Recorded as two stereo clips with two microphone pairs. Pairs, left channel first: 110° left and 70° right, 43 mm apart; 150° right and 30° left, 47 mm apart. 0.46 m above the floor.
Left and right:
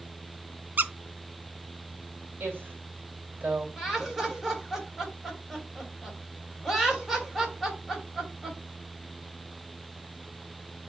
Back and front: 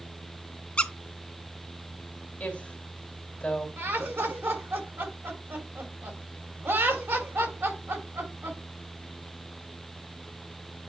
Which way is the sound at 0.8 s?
95° right.